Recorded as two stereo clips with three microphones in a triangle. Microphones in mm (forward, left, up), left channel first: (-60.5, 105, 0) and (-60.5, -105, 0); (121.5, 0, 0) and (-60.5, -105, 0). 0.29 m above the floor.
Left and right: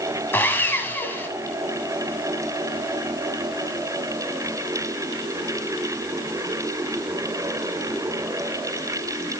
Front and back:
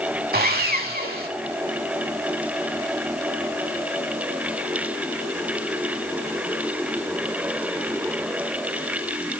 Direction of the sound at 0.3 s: 170° left.